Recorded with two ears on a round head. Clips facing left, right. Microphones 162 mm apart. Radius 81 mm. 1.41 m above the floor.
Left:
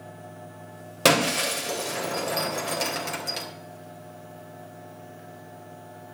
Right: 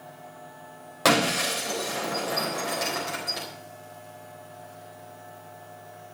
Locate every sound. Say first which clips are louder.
1.1 s breaking glass: left 1 dB; 35° left (ahead or behind), 4 m